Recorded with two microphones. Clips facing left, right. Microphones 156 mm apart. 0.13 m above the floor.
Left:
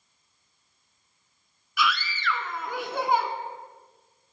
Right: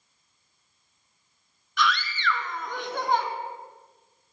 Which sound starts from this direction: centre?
A scream, at 1.8 s.